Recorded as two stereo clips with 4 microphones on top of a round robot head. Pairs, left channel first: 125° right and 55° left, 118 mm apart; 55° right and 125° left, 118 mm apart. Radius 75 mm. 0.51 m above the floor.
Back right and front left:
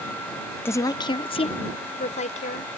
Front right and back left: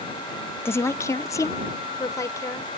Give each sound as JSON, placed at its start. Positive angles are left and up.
{"t": 0.7, "sound": "a woman speaking", "azimuth_deg": -90}